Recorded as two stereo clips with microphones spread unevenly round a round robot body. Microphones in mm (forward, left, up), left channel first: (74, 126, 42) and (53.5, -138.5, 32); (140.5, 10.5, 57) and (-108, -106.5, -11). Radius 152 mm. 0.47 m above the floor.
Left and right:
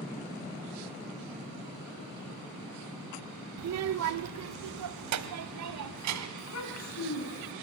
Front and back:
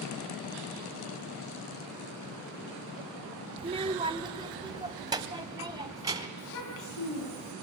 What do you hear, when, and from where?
3.6 s a child speaking: 100° right, 0.7 m; by 6.3 s 80° right, 2.5 m
6.4 s a child speaking: 60° left, 4 m